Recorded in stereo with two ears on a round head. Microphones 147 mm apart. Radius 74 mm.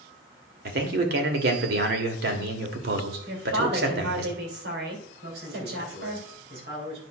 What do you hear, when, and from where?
0.7 s a man speaking: 65° right (ahead or behind), 1.8 m
3.3 s a woman speaking: 70° right (ahead or behind), 3 m
5.2 s a man speaking: 75° right (ahead or behind), 4.5 m